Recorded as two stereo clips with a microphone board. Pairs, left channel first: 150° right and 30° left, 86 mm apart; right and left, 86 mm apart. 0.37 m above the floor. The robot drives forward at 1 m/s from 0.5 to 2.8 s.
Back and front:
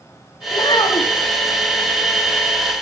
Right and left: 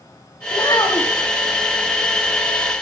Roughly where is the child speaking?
Behind right.